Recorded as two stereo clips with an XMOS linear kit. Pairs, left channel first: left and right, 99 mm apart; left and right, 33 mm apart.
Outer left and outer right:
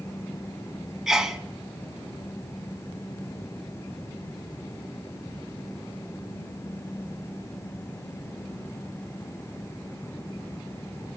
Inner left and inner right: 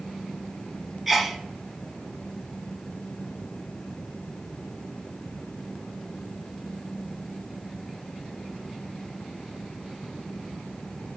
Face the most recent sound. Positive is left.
turn(degrees=-5)  # may be behind; listen again after turning